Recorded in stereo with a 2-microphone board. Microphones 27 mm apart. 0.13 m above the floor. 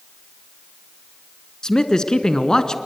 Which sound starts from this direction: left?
A man speaking, at 1.6 s.